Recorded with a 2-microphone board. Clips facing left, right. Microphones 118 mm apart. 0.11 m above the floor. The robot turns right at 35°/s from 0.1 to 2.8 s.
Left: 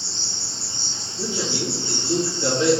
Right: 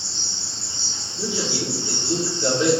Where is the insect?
95° left, 1.0 m; by 2.8 s 170° right, 1.0 m.